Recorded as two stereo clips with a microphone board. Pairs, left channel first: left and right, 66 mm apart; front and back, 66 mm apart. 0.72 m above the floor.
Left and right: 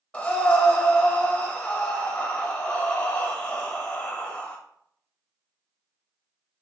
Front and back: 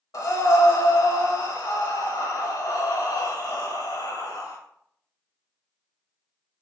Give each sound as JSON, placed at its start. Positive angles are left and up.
{"t": 0.1, "sound": "breathing", "azimuth_deg": 20, "distance_m": 0.9}